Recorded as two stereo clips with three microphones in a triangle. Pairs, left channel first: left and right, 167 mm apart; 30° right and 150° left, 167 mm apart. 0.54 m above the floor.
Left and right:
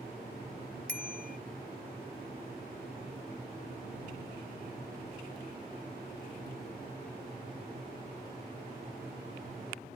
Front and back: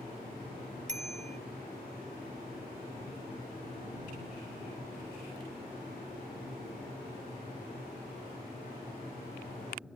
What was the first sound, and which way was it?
A bicycle bell, 110° left.